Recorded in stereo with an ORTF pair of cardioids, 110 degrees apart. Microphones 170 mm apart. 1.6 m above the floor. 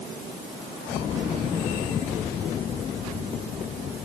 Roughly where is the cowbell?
I don't hear a cowbell.